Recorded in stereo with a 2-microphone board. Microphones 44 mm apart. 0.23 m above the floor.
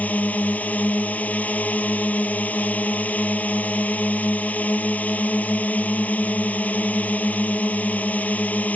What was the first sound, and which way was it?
A drone, 35° left (ahead or behind).